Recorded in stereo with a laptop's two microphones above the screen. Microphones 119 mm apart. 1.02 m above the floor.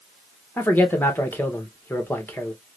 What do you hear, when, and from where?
0.6 s a man speaking: 20° left (ahead or behind), 1.0 m